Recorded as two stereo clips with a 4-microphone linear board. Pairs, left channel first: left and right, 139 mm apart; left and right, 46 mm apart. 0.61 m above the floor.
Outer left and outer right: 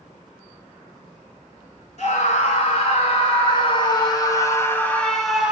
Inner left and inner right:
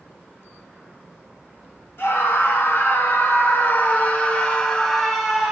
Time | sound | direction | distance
2.0 | a scream | 55° left (ahead or behind) | 2.5 m